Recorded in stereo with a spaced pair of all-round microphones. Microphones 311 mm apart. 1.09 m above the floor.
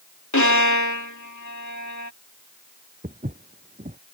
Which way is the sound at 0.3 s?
65° left (ahead or behind).